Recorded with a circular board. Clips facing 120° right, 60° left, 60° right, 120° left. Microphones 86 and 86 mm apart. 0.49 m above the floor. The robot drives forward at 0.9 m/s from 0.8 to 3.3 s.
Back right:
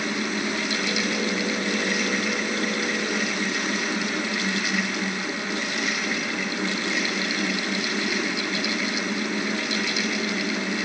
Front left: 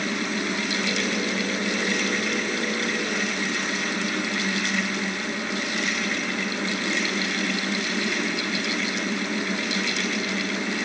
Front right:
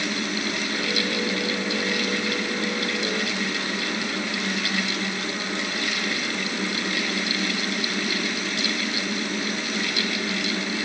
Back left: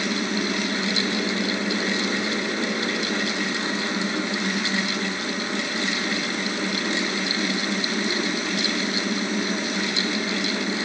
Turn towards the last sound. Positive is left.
No sound to turn to.